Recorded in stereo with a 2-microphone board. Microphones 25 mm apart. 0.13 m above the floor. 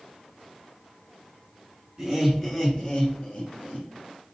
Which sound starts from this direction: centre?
Laughter, at 2.0 s.